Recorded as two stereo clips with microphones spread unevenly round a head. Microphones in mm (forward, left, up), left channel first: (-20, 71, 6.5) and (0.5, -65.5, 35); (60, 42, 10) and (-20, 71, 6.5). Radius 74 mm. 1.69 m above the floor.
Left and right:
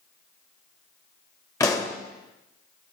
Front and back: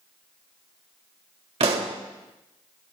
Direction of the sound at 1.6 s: 170° left.